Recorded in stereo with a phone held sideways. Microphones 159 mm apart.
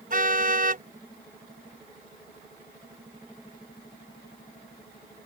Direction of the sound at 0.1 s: 55° right (ahead or behind).